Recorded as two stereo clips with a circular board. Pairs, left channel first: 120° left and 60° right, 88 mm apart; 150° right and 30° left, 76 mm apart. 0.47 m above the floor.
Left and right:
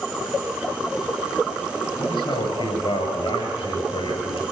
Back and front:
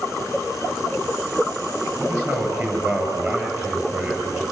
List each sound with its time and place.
2.0 s a man speaking: 85° left, 9 m